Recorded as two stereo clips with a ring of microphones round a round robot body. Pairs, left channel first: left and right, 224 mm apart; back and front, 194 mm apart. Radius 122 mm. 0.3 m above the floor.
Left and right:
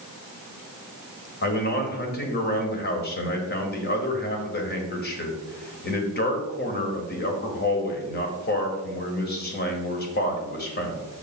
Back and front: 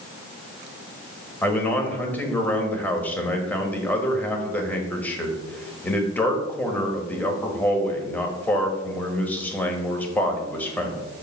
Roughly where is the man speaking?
Left.